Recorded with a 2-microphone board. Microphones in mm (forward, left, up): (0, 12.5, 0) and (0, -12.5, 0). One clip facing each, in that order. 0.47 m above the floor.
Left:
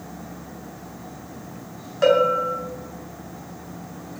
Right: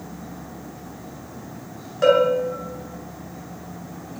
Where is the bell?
10° left (ahead or behind), 3.5 m.